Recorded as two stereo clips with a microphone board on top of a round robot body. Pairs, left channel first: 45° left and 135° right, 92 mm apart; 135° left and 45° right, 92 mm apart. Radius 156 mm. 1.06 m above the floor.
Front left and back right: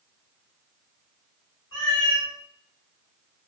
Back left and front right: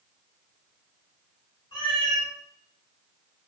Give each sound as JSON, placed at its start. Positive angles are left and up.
{"t": 1.7, "sound": "a cat meowing", "azimuth_deg": 95, "distance_m": 1.6}